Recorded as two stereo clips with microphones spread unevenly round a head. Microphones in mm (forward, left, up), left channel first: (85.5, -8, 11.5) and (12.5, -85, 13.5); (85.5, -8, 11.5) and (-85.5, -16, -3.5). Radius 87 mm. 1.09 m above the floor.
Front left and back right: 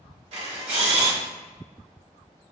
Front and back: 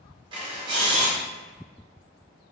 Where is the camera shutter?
115° right, 2.0 m.